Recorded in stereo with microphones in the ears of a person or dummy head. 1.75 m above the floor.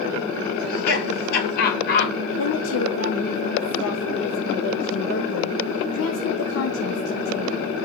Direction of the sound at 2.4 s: 80° left.